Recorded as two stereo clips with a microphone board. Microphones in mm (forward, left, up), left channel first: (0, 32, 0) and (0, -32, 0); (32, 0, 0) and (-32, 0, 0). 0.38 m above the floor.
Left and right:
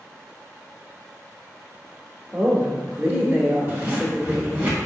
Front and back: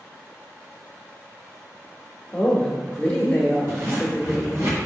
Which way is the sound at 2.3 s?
50° right.